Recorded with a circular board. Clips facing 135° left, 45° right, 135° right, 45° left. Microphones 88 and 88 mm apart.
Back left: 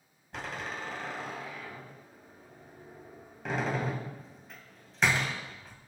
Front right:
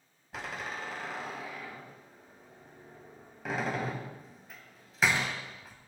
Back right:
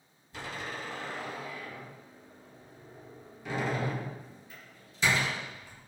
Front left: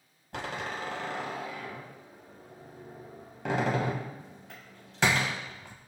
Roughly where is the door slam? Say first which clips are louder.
Back left 1 dB, front left 4 dB; ahead left.